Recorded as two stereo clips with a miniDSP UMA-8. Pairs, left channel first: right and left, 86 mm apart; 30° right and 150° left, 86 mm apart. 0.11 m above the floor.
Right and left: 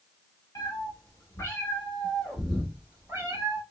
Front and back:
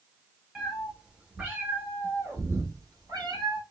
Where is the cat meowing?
120° right, 1.3 m; by 3.6 s 130° left, 1.3 m.